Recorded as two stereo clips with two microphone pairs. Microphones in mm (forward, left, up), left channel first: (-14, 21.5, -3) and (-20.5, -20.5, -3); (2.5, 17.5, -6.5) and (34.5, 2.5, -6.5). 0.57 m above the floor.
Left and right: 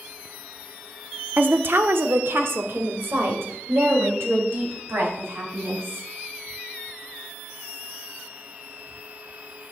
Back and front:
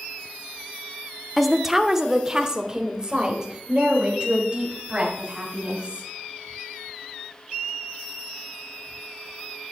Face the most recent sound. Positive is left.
turn(degrees=-85)